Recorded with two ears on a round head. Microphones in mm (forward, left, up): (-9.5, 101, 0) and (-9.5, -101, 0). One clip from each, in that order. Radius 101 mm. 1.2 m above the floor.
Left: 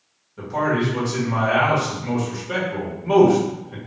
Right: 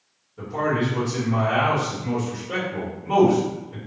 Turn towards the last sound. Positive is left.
turn(degrees=50)  # may be behind; listen again after turning